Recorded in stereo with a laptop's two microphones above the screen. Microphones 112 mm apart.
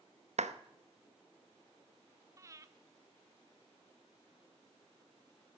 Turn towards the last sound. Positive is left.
turn(degrees=-30)  # may be behind; listen again after turning